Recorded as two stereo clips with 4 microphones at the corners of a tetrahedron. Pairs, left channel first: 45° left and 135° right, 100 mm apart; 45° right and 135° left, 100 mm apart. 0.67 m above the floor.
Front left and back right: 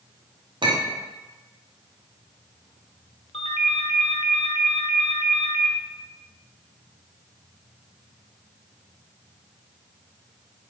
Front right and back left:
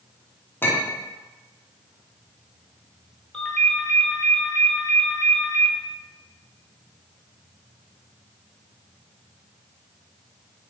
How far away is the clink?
About 0.7 m.